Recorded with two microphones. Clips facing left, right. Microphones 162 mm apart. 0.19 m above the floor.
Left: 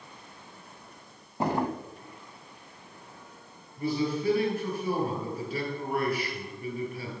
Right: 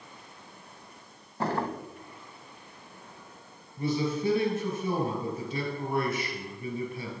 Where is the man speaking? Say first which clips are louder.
Even; 25° right (ahead or behind), 3 m.